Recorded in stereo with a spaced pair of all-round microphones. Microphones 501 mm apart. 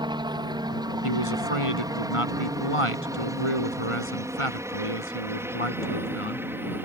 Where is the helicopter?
10° right (ahead or behind); by 6.8 s 5° right (ahead or behind).